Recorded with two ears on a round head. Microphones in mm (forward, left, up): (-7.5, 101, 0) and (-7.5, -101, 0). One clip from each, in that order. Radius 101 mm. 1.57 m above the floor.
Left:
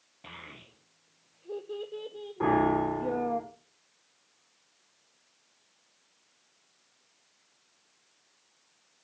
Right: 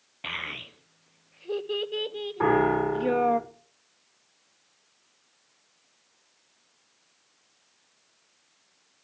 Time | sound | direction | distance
0.2 | a child speaking | 65° right (ahead or behind) | 0.7 m
2.4 | a piano | 40° right (ahead or behind) | 6.5 m